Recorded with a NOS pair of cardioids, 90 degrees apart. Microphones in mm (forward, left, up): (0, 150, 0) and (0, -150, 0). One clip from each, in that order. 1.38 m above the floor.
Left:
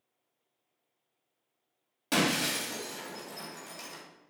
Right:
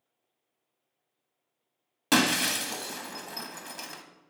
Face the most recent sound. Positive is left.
turn(degrees=-50)